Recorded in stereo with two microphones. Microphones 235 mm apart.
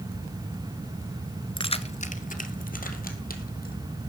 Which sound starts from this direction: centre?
Keys jangling, at 1.6 s.